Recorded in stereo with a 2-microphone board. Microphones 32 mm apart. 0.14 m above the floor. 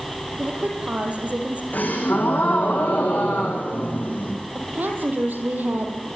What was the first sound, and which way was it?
A woman speaking, 50° right (ahead or behind).